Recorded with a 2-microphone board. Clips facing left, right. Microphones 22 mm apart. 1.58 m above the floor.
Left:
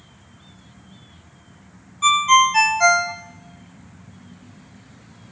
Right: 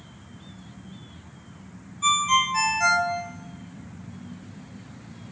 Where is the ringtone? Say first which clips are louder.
Left 7 dB; 35° left (ahead or behind), 0.6 m.